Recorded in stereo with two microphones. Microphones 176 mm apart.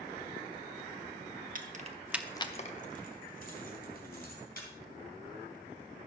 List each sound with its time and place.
1.6 s keys jangling: 50° right (ahead or behind), 1.1 m; by 4.7 s 55° left (ahead or behind), 4 m